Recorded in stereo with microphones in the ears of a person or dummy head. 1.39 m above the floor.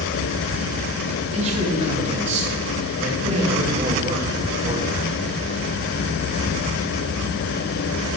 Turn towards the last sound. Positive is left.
turn(degrees=-40)  # may be behind; listen again after turning